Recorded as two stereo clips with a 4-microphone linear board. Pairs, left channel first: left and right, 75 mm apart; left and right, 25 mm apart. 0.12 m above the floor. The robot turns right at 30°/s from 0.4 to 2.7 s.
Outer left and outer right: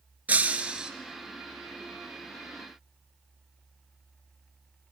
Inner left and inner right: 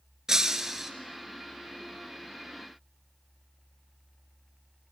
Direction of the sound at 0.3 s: 20° right (ahead or behind).